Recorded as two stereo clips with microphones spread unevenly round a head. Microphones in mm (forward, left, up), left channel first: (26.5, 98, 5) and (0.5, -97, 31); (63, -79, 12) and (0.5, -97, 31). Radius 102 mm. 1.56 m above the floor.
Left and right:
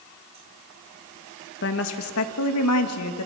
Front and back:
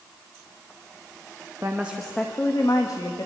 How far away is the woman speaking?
About 1.9 m.